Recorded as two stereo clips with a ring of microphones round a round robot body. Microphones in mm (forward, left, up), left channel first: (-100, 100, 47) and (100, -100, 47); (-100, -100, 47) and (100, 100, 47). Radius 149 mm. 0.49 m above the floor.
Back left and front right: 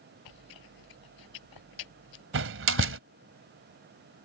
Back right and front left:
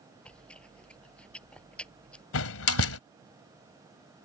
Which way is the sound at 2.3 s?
95° right.